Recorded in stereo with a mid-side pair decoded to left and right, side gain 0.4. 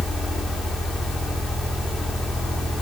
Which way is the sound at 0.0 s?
60° left.